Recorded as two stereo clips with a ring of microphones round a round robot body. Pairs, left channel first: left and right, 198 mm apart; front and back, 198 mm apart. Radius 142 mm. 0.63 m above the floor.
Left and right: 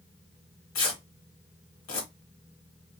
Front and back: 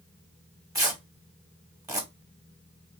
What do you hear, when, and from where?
0.8 s tearing paper: 105° left, 1.4 m